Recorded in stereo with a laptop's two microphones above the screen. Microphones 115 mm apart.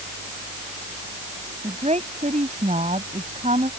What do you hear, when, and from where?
1.6 s a woman speaking: 80° right; by 3.7 s 90° right